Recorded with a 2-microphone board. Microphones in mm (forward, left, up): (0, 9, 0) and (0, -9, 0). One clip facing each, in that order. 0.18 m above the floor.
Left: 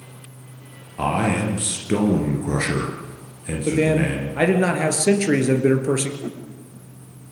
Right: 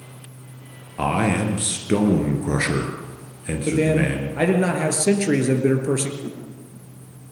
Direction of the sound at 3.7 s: 15° left (ahead or behind).